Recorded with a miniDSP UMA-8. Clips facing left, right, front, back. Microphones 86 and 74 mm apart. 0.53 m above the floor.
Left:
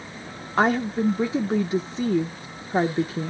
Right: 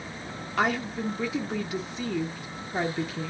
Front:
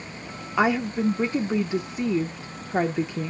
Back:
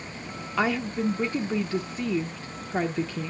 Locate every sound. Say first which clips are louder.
0.6 s a woman speaking: left 6 dB, front 4 dB; 65° left, 0.8 m